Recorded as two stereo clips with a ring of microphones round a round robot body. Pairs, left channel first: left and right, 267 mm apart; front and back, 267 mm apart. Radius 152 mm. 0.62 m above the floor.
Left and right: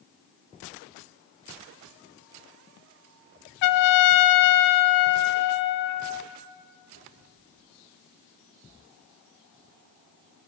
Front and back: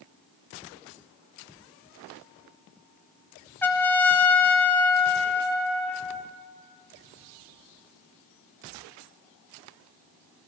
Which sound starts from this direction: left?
A trumpet, at 3.6 s.